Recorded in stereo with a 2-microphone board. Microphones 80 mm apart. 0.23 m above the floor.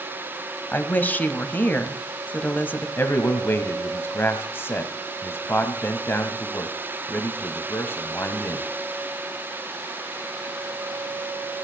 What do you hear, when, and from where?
0.7 s a woman speaking: 20° left (ahead or behind), 1.1 m
3.0 s a man speaking: 25° left (ahead or behind), 1.3 m